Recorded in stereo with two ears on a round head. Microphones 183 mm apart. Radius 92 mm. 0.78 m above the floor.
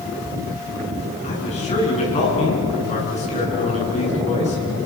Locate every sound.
1.2 s a man speaking: 35° left (ahead or behind), 8.5 m